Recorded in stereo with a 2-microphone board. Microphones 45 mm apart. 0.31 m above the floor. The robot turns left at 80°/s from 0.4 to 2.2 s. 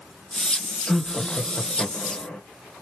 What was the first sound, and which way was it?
Laughter, straight behind.